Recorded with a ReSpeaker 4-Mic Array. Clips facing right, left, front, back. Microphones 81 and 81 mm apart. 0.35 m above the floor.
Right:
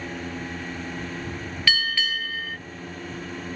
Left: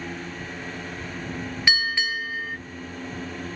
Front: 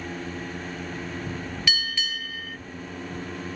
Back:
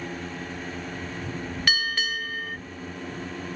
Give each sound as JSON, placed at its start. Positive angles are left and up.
{"t": 1.7, "sound": "a bell", "azimuth_deg": 155}